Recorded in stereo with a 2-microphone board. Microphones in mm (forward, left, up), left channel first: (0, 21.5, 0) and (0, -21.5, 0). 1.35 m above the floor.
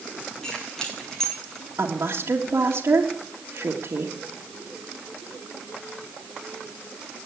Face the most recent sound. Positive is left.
turn(degrees=-70)  # may be behind; listen again after turning